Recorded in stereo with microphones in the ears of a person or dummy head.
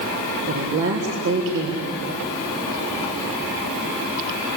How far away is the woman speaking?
About 3.5 m.